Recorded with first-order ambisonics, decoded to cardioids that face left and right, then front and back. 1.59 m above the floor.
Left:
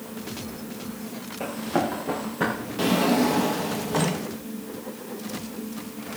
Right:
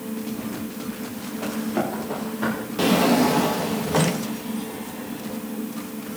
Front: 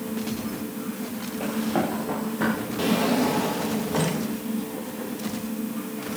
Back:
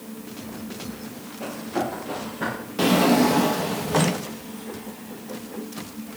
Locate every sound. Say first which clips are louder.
1.4 s running footsteps: left 1 dB, front 1 dB; 60° left, 8 m; by 2.5 s 70° left, 7.5 m
2.8 s a drawer: right 3 dB, back 5 dB; 150° right, 0.9 m